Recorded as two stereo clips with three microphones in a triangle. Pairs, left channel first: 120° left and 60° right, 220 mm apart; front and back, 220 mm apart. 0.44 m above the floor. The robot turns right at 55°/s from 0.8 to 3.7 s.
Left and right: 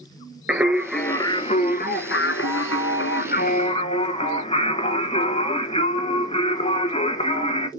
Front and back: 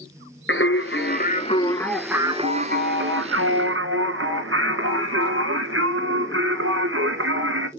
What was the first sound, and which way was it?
Singing, 25° left.